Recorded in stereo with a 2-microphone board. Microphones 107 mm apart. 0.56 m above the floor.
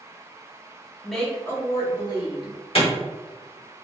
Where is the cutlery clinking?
No cutlery clinking in this recording.